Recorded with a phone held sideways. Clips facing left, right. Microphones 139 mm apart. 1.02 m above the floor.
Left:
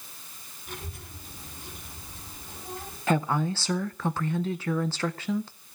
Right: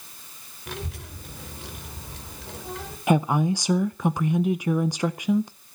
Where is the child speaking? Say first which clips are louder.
Right 6 dB; 85° right, 3.5 m.